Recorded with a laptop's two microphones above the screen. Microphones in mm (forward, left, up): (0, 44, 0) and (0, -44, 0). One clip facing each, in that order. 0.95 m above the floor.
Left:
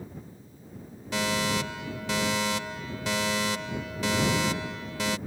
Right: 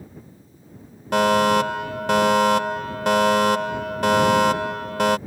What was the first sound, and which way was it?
A fire alarm, 55° right (ahead or behind).